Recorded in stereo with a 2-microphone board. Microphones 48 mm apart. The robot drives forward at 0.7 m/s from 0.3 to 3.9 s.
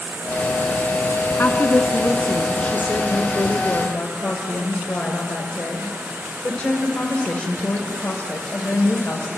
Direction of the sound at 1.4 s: 45° left (ahead or behind).